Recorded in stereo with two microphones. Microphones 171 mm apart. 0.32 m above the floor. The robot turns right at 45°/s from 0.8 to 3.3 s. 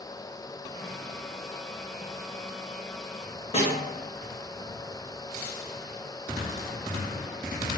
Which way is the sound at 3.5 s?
40° left (ahead or behind).